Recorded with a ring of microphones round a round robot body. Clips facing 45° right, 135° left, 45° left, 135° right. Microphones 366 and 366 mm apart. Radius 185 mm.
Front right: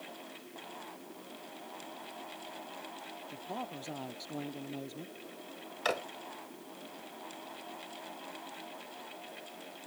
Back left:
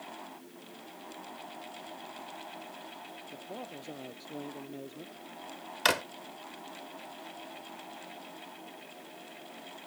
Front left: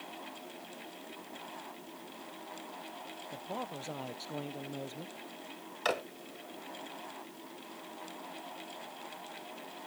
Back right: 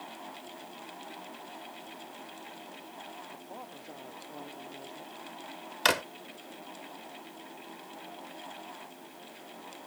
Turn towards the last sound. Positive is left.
turn(degrees=180)